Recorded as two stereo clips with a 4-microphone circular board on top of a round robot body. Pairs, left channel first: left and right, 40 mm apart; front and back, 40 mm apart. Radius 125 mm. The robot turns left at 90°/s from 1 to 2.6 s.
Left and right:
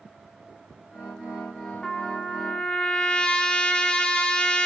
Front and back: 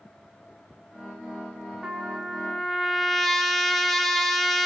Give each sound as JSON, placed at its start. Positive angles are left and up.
{"t": 1.8, "sound": "a trumpet", "azimuth_deg": 150, "distance_m": 0.7}